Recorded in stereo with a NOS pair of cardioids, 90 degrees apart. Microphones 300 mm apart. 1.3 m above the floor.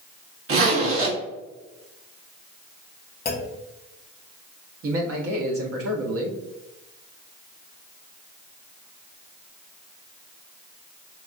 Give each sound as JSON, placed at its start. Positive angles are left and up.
{"t": 0.5, "sound": "a zipper", "azimuth_deg": -50, "distance_m": 1.4}
{"t": 3.2, "sound": "a clunk", "azimuth_deg": 30, "distance_m": 0.8}
{"t": 4.8, "sound": "a man speaking", "azimuth_deg": -50, "distance_m": 1.1}